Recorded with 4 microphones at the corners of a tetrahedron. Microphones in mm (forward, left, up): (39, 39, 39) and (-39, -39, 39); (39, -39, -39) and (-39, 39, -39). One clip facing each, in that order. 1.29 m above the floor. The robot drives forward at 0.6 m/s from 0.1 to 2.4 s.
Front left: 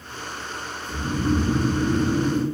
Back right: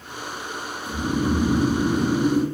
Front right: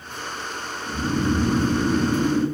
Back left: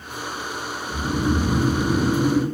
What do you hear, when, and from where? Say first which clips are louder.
0.9 s snoring: back right 1 dB, even; 105° right, 1.0 m; by 2.5 s 145° right, 1.5 m